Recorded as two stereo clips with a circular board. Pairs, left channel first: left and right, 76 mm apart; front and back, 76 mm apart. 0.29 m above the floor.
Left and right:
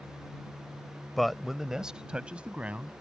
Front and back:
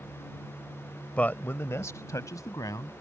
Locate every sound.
1.2 s a man speaking: 10° left; by 2.9 s 20° right